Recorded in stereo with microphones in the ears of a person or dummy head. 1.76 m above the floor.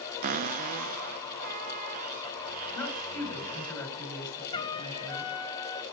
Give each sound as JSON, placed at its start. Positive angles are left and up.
{"t": 0.2, "sound": "a cupboard door", "side_deg": -45, "distance_m": 0.6}
{"t": 2.7, "sound": "a woman speaking", "side_deg": 15, "distance_m": 7.5}
{"t": 4.5, "sound": "a trumpet", "side_deg": 25, "distance_m": 0.8}